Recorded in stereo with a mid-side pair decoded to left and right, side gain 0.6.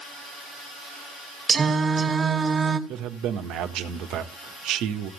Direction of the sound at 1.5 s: 35° right.